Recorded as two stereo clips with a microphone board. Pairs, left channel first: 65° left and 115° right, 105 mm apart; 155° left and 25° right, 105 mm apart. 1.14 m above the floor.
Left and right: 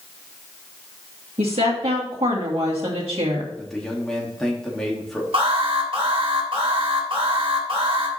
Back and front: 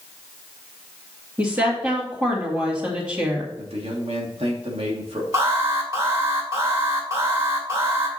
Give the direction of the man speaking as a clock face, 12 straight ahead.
1 o'clock.